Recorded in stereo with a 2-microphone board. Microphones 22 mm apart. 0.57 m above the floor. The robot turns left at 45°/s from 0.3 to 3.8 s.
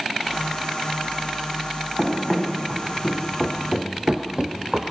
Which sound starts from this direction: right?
Running footsteps, at 2.0 s.